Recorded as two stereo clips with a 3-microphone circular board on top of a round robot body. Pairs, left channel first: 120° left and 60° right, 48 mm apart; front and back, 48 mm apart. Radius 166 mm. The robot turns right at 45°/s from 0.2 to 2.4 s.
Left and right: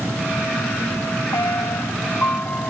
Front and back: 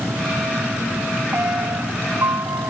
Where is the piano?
130° left; by 2.7 s 175° left.